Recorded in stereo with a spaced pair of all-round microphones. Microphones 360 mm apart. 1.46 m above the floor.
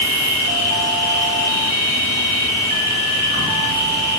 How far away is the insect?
About 3.5 m.